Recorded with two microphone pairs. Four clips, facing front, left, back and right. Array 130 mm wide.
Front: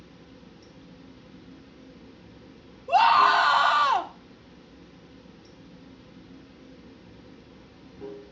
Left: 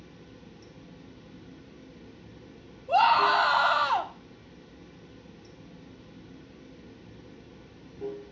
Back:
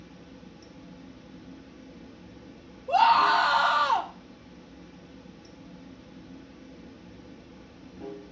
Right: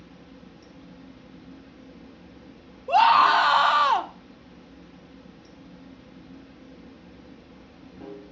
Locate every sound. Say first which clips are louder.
0.0 s running water: right 2 dB, back 2 dB; 120° right, 1.4 m
2.9 s a scream: right 4 dB, front 2 dB; 75° right, 1.1 m